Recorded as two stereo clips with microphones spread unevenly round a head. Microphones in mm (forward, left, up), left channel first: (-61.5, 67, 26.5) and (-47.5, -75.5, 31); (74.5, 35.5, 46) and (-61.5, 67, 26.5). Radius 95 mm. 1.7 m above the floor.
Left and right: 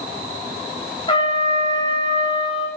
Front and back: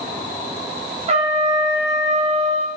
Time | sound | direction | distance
1.1 | a trumpet | 135° left | 0.7 m